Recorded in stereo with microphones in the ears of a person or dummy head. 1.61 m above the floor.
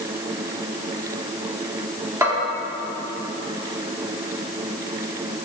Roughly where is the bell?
Centre.